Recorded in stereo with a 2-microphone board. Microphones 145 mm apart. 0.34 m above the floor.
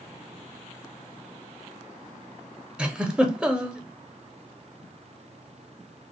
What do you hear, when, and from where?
2.8 s a giggle: 5° right (ahead or behind), 0.7 m